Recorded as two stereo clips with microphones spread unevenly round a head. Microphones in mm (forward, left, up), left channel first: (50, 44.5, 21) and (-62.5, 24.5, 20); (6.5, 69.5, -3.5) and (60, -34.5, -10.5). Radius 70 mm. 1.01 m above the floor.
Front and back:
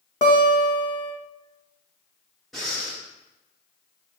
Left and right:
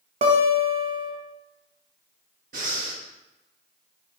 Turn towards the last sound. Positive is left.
turn(degrees=-75)